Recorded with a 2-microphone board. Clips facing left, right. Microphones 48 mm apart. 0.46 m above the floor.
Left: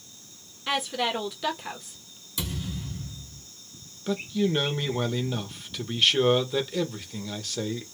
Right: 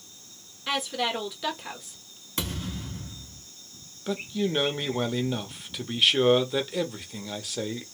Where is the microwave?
I don't hear a microwave.